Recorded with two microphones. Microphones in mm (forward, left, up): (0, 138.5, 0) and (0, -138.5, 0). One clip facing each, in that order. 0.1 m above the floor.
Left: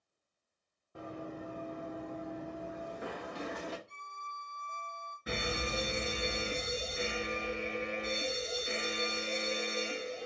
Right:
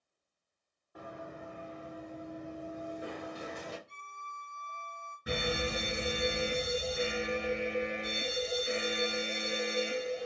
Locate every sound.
0.9 s running footsteps: 25° left (ahead or behind), 0.8 m; by 3.8 s 65° left (ahead or behind), 1.2 m
3.9 s a violin: 35° left (ahead or behind), 2 m
5.3 s a fire alarm: 15° right (ahead or behind), 2 m